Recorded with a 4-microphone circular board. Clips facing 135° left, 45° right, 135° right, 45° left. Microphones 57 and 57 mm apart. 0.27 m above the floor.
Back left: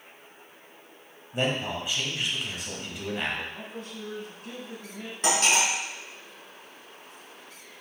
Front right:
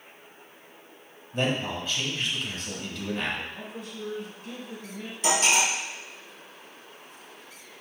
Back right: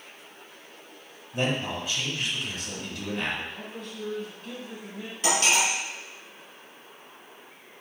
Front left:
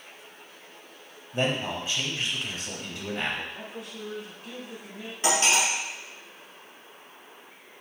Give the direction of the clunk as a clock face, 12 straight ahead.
I don't hear a clunk.